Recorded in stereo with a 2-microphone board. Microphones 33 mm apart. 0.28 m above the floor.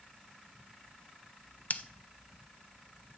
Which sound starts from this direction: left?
Scissors, at 1.7 s.